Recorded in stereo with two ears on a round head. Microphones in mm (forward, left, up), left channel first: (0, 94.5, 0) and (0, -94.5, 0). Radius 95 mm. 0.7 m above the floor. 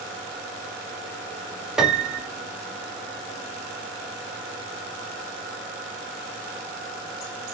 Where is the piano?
5° right (ahead or behind), 1.0 m.